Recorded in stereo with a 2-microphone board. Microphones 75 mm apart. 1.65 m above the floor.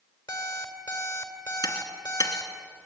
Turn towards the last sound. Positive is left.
turn(degrees=70)  # may be behind; listen again after turning